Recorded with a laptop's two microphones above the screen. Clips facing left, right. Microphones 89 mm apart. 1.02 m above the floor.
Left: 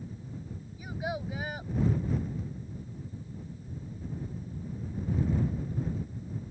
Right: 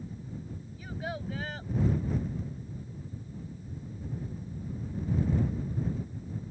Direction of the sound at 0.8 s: 15° left (ahead or behind).